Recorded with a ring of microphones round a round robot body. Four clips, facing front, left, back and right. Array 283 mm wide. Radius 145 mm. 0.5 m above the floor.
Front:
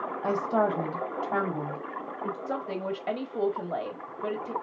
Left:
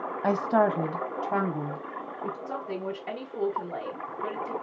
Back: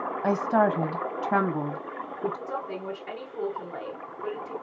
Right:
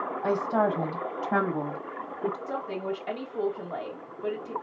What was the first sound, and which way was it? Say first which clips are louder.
A woman speaking: left 2 dB, back 3 dB; 125° left.